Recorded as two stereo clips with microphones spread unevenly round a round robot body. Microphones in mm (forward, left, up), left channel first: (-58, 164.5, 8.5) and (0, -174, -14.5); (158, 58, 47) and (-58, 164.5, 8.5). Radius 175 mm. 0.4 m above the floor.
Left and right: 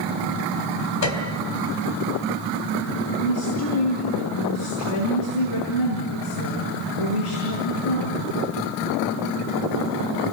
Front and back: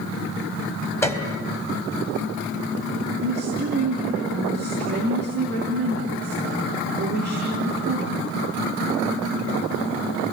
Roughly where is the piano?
Ahead left.